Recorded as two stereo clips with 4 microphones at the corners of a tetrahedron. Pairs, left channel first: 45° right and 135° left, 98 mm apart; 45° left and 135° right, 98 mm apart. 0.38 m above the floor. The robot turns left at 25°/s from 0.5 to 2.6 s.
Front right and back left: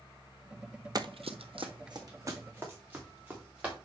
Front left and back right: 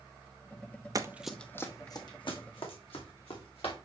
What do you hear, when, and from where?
0.9 s running footsteps: straight behind, 0.7 m; by 3.8 s 60° left, 4 m